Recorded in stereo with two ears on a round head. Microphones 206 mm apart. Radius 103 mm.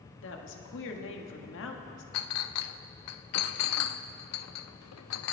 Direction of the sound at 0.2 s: 55° left (ahead or behind).